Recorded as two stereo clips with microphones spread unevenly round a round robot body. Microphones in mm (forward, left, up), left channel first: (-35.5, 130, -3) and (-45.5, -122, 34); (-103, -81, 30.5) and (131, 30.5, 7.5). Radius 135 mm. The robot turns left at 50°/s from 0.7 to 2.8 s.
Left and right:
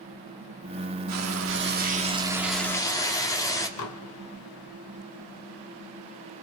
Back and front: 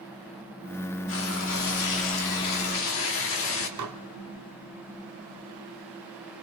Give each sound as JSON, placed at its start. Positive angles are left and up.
{"t": 1.1, "sound": "frying", "azimuth_deg": -110, "distance_m": 2.5}
{"t": 3.8, "sound": "dishes clattering", "azimuth_deg": 55, "distance_m": 1.4}